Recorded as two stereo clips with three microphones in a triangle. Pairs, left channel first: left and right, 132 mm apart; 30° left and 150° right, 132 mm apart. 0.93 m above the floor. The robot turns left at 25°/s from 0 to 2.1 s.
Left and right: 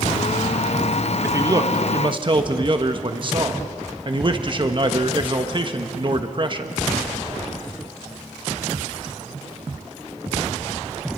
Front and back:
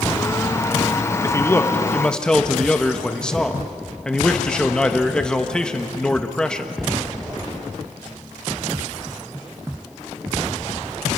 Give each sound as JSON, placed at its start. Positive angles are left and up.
{"t": 1.2, "sound": "a man speaking", "azimuth_deg": -30, "distance_m": 1.3}